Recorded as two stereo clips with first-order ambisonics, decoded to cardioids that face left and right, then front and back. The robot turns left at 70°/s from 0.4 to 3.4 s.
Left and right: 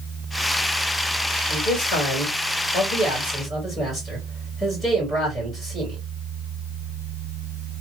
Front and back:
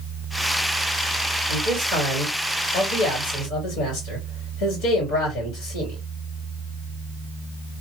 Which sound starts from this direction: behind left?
A man speaking, at 1.5 s.